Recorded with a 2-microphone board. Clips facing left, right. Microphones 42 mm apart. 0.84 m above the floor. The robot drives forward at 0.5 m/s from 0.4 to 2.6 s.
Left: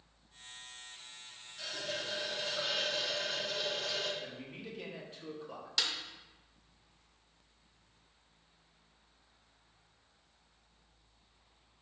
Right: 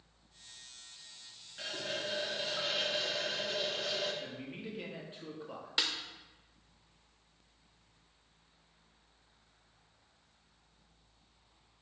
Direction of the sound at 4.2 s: 25° right (ahead or behind).